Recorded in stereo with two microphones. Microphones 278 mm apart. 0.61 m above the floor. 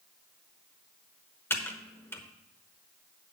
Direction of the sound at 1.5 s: 10° left (ahead or behind).